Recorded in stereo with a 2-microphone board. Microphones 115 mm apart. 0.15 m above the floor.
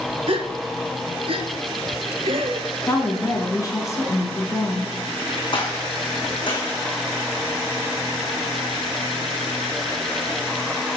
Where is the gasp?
60° right (ahead or behind), 0.6 m.